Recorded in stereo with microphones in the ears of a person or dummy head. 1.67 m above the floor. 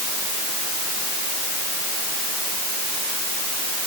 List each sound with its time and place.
Only background noise.